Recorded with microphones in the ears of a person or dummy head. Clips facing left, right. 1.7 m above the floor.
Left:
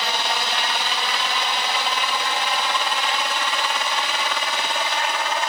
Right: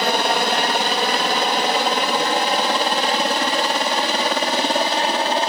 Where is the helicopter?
40° right (ahead or behind); by 5.5 s 30° right (ahead or behind).